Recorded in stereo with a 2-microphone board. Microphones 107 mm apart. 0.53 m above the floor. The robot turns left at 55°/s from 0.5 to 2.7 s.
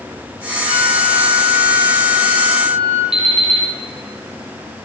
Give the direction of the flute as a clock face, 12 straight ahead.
3 o'clock.